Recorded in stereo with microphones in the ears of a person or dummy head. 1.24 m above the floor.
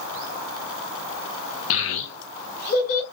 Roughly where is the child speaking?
Left.